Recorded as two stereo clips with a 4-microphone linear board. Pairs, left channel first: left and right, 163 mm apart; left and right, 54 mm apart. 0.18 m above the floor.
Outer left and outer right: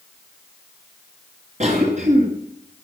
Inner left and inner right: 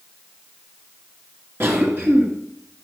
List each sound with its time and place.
1.6 s a cough: 45° right (ahead or behind), 2.5 m